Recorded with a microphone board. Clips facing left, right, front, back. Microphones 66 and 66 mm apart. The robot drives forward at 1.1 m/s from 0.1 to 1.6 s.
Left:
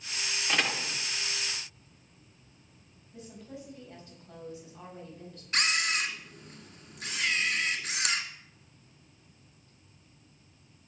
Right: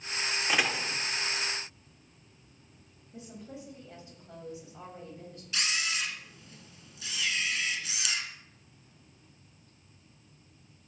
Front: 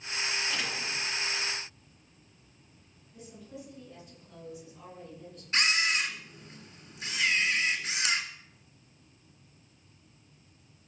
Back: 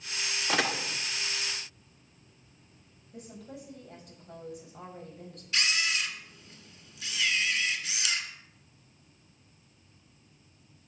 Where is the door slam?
170° right, 0.8 m; by 1.0 s 175° right, 1.3 m.